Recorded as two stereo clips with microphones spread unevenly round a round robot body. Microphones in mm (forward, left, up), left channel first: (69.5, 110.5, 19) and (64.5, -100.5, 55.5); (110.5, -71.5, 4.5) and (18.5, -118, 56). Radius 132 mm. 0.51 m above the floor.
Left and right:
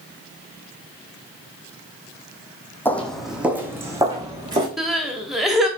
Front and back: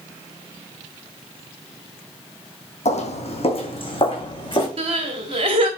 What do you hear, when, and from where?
2.9 s footsteps: 5° left, 1.4 m; by 4.7 s 25° right, 3 m
4.8 s crying: 165° left, 0.9 m